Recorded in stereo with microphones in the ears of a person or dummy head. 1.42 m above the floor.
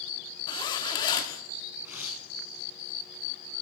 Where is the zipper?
25° left (ahead or behind), 1.3 m.